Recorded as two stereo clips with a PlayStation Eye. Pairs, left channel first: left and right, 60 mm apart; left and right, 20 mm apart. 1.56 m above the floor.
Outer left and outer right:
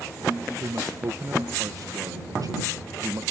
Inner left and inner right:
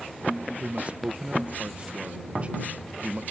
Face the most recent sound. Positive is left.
turn(degrees=-85)